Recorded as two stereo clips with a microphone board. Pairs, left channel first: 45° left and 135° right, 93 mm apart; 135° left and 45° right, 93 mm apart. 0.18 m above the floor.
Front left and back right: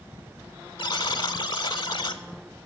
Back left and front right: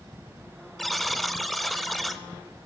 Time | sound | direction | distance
0.8 | a buzzer | 50° left | 0.5 m